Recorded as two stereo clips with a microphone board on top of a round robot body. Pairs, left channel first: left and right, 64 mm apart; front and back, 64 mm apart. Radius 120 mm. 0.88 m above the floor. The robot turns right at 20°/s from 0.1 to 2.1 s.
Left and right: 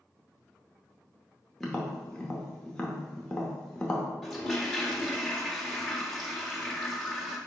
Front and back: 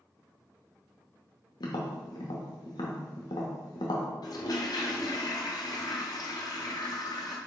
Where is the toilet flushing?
Straight ahead, 1.6 m.